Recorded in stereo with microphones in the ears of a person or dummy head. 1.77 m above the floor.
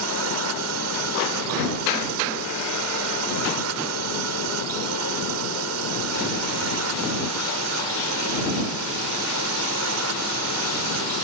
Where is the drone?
80° right.